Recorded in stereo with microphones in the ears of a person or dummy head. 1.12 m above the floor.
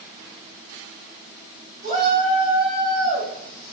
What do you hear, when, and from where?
1.8 s a shout: 20° right (ahead or behind), 1.2 m; by 3.7 s 30° right (ahead or behind), 2.5 m